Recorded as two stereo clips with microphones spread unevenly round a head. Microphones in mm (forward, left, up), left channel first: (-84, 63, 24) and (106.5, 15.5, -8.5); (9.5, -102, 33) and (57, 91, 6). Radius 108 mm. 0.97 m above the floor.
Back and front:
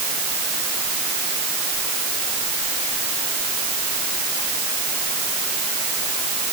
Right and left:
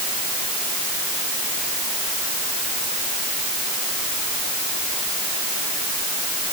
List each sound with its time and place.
Only background noise.